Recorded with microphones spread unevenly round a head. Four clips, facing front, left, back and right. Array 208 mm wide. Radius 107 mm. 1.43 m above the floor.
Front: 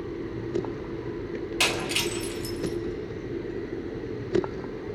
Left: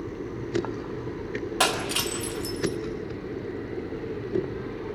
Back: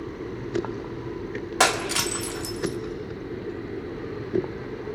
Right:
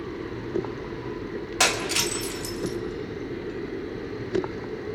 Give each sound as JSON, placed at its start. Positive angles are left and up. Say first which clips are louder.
{"t": 1.6, "sound": "breaking glass", "louder": "right 1 dB, back 7 dB", "azimuth_deg": 175, "distance_m": 2.0}